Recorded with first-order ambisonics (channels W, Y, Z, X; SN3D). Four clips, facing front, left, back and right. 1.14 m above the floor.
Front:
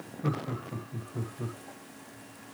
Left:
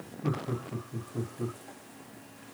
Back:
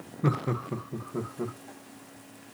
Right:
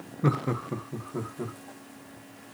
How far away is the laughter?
About 0.6 m.